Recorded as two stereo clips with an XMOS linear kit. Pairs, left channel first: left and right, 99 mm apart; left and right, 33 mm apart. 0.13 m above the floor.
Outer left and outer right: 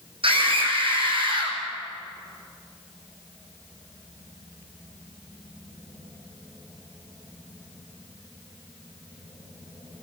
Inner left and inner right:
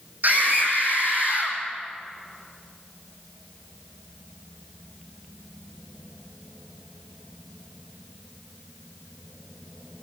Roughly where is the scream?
Right.